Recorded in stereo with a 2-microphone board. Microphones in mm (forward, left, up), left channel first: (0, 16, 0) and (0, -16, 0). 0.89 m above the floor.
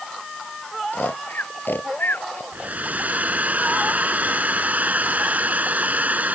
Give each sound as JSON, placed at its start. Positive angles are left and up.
{"t": 0.9, "sound": "snoring", "side_deg": 80}
{"t": 2.5, "sound": "a hair dryer", "side_deg": -55}